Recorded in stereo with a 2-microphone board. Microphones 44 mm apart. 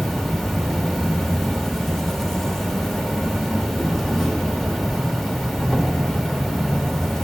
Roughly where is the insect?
Centre.